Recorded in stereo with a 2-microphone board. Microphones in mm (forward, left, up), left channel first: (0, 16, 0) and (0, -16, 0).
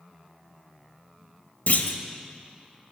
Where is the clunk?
80° left, 1.1 m.